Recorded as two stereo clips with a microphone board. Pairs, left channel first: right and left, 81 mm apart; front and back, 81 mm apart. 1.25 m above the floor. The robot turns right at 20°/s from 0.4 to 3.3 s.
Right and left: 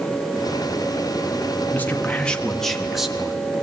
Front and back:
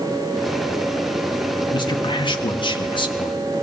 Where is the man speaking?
25° right, 1.6 m; by 3.4 s 10° left, 1.6 m.